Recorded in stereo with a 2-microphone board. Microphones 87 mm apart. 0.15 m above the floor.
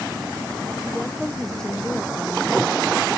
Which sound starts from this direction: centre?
A woman speaking, at 0.8 s.